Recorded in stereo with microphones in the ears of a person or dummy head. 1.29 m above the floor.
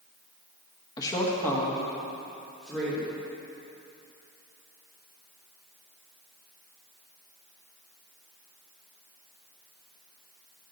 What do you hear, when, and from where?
1.0 s a woman speaking: 25° left (ahead or behind), 1.1 m; by 3.1 s centre (ahead or behind), 3 m